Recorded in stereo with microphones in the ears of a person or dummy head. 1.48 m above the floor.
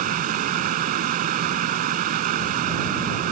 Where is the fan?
50° right (ahead or behind).